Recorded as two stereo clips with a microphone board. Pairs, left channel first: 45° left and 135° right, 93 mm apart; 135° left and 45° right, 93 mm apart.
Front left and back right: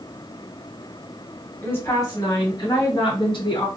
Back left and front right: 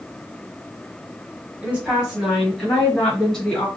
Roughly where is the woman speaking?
Ahead.